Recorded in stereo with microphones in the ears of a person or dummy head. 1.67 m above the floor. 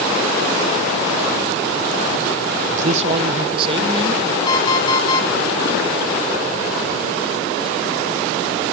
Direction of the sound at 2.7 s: 45° right (ahead or behind).